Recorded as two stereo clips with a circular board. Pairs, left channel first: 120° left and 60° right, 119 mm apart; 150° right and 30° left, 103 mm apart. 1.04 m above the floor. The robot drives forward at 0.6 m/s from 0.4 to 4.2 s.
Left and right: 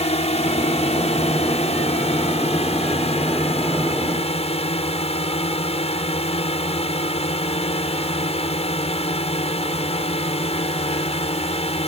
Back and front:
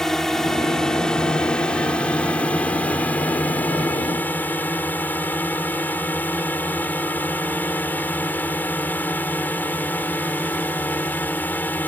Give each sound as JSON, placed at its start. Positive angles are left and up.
{"t": 0.0, "sound": "a drone", "azimuth_deg": 125}